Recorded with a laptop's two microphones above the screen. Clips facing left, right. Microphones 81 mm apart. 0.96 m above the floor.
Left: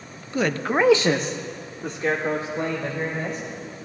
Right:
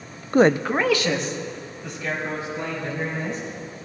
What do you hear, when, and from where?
0.3 s a man speaking: 50° right (ahead or behind), 0.5 m; by 3.4 s 50° left (ahead or behind), 4 m